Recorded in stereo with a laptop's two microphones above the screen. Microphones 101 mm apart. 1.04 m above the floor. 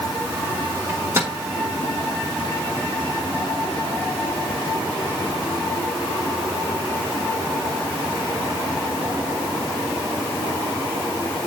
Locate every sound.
0.9 s a microwave: 25° right (ahead or behind), 1.4 m